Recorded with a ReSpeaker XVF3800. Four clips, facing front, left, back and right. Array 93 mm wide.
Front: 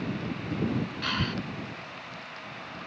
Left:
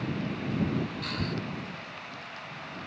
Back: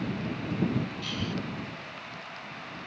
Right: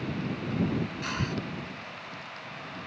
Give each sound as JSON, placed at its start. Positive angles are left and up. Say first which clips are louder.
{"t": 1.0, "sound": "breathing", "louder": "right 1 dB, front 4 dB", "azimuth_deg": -20}